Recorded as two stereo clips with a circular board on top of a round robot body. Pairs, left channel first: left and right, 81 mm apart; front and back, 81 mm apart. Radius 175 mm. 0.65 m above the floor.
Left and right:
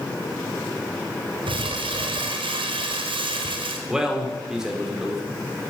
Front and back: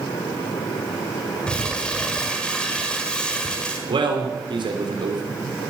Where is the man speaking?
175° right, 3 m.